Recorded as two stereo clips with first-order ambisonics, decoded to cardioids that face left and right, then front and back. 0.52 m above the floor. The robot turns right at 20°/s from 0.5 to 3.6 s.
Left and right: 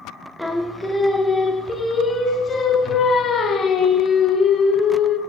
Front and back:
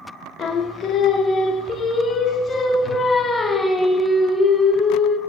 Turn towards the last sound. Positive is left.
turn(degrees=70)